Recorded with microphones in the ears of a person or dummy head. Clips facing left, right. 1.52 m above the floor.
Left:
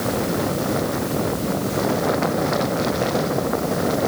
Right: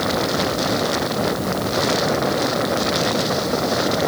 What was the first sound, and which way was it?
Only background noise.